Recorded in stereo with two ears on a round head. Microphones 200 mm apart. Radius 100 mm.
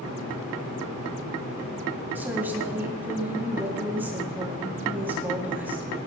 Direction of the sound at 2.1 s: 10° right (ahead or behind).